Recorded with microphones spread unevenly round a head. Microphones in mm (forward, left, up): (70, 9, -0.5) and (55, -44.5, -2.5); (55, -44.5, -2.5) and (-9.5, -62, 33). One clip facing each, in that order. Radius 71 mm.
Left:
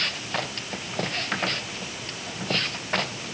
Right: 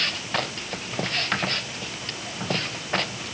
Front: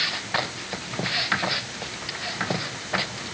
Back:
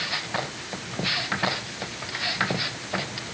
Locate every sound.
Only background noise.